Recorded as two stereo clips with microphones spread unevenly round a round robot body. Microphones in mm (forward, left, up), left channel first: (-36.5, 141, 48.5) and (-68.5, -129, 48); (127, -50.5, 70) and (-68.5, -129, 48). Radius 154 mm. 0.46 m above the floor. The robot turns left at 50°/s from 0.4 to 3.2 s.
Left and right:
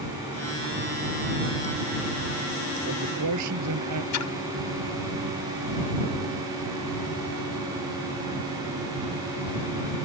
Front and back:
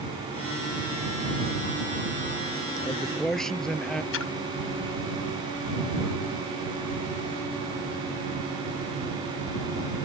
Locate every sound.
2.8 s a man speaking: 45° right; by 4.0 s 65° right
4.1 s a splash: 55° left